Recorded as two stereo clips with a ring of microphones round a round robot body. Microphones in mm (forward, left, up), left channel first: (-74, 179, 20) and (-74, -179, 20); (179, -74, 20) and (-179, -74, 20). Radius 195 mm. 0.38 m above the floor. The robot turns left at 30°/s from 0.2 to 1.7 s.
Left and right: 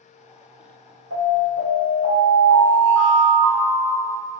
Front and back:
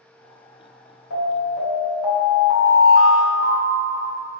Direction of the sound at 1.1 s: 35° right.